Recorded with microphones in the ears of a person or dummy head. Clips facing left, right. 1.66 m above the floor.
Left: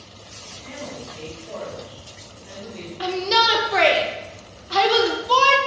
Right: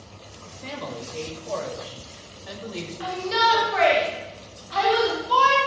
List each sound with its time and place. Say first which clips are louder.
0.5 s a man speaking: right 1 dB; 70° right (ahead or behind), 5.5 m; by 2.9 s 85° right, 6.5 m
3.0 s a shout: left 3 dB; 60° left (ahead or behind), 2 m